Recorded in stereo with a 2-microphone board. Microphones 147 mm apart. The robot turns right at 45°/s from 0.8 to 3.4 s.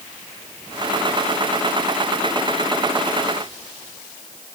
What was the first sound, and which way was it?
Only background noise.